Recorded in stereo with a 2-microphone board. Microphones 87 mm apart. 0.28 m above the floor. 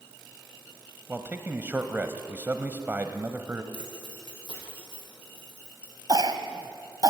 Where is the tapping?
No tapping in this recording.